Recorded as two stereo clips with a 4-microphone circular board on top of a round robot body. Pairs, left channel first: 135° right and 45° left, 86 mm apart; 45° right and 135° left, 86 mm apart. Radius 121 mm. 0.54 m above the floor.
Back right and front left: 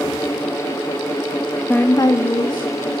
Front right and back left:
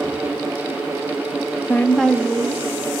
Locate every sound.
1.7 s a woman speaking: 80° right, 0.7 m; by 2.7 s 160° right, 1.3 m